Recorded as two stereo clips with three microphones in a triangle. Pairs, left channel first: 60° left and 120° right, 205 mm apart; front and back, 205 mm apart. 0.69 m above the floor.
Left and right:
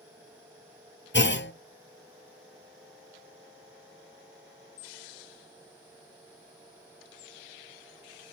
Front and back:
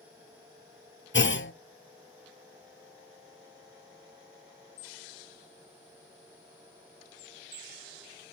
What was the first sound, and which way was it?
A clunk, 30° left.